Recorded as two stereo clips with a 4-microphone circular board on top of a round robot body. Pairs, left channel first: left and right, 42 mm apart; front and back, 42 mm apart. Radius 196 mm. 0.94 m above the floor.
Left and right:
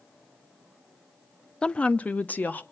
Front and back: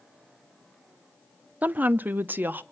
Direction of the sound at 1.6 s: 155° left.